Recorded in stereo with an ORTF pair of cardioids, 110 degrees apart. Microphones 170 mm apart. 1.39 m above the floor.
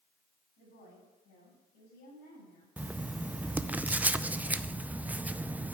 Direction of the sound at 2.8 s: 10° right.